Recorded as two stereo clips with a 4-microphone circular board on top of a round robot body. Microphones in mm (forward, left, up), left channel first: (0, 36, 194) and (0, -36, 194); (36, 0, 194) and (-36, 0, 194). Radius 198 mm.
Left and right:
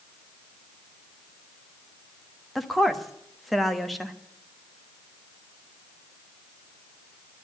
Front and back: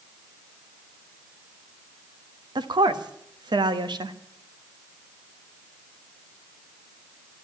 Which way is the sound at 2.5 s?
Straight behind.